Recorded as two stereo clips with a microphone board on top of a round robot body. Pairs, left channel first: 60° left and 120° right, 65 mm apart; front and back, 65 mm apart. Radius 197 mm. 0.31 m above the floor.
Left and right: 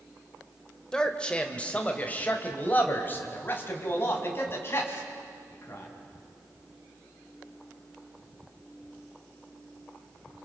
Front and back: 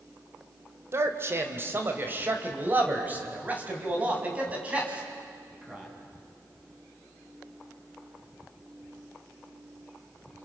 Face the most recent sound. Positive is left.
turn(degrees=105)